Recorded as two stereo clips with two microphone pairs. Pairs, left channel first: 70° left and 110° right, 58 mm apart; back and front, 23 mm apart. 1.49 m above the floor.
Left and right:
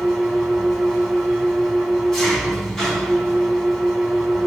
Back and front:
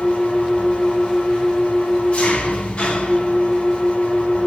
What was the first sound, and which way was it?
An engine running, 155° left.